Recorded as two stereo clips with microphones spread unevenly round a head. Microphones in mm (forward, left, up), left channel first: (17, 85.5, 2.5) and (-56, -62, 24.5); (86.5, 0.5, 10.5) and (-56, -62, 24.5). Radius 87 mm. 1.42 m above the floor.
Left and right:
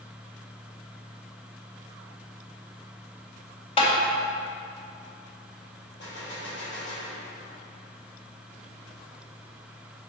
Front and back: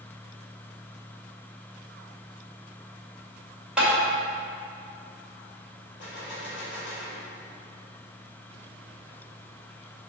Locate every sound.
3.8 s tapping: 120° left, 2.5 m
6.0 s a gunshot: 35° left, 3 m